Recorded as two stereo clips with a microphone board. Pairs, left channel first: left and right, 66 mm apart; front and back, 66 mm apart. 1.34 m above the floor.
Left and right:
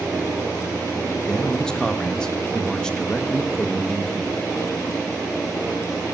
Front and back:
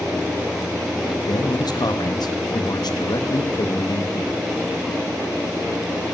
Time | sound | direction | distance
1.3 | a man speaking | 10° left | 1.5 m